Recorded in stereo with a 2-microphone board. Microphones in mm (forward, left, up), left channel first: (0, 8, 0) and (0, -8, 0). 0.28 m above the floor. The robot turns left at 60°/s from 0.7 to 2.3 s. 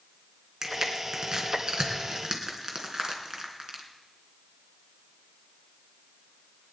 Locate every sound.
0.6 s crushing: 35° right (ahead or behind), 3 m; by 3.8 s 45° right (ahead or behind), 3 m